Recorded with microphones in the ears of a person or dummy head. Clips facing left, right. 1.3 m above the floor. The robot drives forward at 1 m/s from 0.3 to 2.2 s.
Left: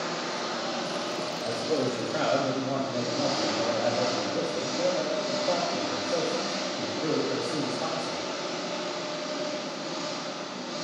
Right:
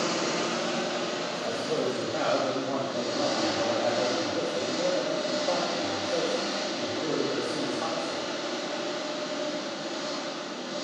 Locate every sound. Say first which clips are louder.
0.0 s an engine running: right 4 dB; 55° right (ahead or behind), 0.9 m; by 10.9 s 15° right (ahead or behind), 2.5 m
1.4 s a man speaking: left 2 dB; 10° left (ahead or behind), 1.6 m; by 8.3 s 5° left (ahead or behind), 2.5 m